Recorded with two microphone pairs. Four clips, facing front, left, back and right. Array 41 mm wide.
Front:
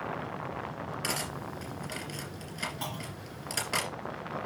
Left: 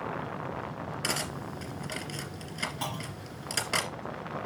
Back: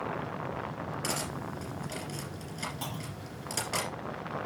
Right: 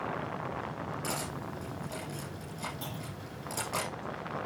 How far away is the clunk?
About 1.6 m.